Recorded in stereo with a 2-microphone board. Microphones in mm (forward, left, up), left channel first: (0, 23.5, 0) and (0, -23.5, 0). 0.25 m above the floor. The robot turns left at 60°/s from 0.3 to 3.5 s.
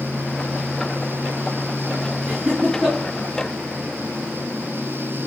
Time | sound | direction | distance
2.3 | laughter | 45° right (ahead or behind) | 3.5 m